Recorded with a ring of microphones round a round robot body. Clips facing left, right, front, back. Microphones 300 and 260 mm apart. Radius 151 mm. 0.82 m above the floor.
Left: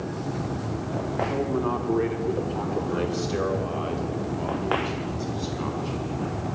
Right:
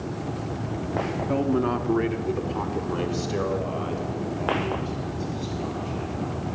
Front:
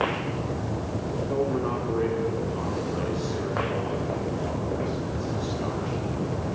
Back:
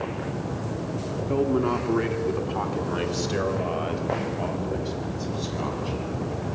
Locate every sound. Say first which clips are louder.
1.3 s a man speaking: right 4 dB, back 4 dB; 120° right, 1.9 m; by 6.5 s 165° left, 8 m